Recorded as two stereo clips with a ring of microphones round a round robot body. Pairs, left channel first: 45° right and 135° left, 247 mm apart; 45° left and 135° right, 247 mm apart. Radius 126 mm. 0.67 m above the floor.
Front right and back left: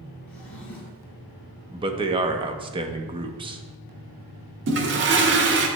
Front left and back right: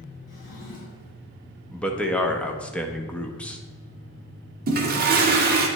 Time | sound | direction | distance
0.3 | a drawer | 40° left | 4 m
1.7 | a man speaking | 120° left | 0.7 m
4.7 | a toilet flushing | 175° left | 1.2 m